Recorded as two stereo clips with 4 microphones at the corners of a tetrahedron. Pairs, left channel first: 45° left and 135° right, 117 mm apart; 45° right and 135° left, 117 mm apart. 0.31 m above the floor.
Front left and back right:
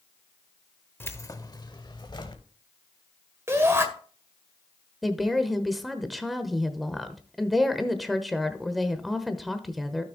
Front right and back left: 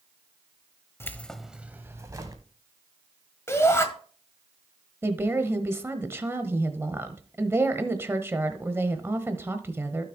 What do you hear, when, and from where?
1.0 s keys jangling: 5° right, 0.7 m; by 2.4 s 85° left, 1.3 m
3.5 s a shout: 85° right, 1.6 m
5.0 s a woman speaking: 135° left, 1.0 m